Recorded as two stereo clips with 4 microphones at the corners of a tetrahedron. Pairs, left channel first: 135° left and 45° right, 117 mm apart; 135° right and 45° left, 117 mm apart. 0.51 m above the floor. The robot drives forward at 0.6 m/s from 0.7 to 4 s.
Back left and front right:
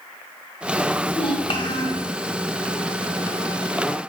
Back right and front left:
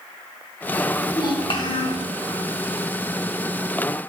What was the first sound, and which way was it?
A child speaking, straight behind.